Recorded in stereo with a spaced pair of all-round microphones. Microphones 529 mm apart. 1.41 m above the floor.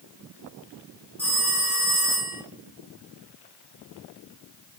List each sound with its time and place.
1.2 s a phone ringing: 5° right (ahead or behind), 3 m